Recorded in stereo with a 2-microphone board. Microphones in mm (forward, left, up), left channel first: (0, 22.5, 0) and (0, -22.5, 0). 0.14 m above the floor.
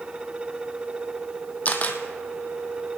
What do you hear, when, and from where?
1.6 s a camera shutter: 35° left (ahead or behind), 1.3 m